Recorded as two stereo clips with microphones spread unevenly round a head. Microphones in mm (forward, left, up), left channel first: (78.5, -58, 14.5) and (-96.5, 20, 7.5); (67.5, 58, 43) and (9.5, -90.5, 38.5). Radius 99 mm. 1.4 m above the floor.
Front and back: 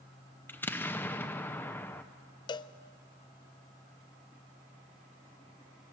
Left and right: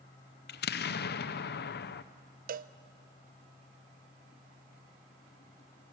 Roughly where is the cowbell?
Right.